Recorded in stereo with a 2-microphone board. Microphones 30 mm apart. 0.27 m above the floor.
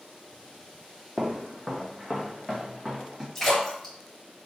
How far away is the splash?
About 1.7 m.